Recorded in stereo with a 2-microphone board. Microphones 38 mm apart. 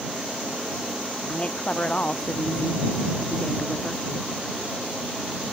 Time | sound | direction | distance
1.3 | a woman speaking | 35° left (ahead or behind) | ?